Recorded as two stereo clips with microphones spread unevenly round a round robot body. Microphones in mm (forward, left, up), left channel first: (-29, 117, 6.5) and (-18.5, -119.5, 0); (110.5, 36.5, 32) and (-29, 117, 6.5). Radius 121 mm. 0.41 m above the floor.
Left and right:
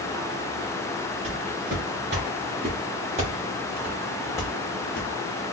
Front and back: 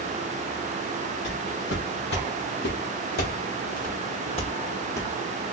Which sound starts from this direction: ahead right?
Footsteps, at 1.2 s.